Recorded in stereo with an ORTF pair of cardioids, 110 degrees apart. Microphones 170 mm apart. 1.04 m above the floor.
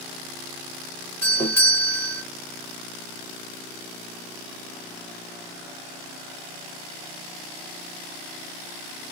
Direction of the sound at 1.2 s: 15° left.